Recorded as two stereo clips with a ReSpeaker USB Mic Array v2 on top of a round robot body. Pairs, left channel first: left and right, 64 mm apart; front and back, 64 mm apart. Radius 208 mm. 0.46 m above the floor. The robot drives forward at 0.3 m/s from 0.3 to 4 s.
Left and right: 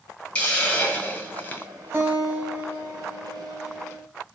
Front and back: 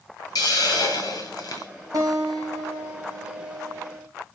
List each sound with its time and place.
0.3 s a hiss: 15° left, 0.9 m; by 1.7 s 25° left, 0.5 m
1.9 s a guitar: 150° right, 1.0 m; by 4.1 s 160° right, 1.5 m